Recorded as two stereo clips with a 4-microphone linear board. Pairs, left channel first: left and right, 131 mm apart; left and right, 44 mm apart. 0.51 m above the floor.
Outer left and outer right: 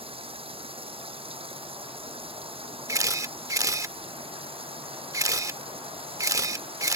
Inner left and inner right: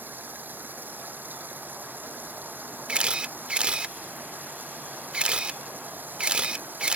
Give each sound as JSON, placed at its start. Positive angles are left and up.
{"t": 0.0, "sound": "running water", "side_deg": -45}
{"t": 2.9, "sound": "a camera shutter", "side_deg": -25}